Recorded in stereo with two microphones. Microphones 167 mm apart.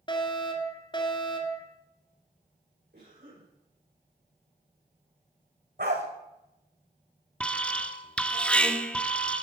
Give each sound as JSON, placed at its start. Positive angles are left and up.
{"t": 0.1, "sound": "a fire alarm", "side_deg": 30, "distance_m": 2.5}
{"t": 2.9, "sound": "a cough", "side_deg": -80, "distance_m": 9.0}
{"t": 5.8, "sound": "a dog barking", "side_deg": -75, "distance_m": 3.5}
{"t": 7.4, "sound": "an alarm", "side_deg": 5, "distance_m": 1.2}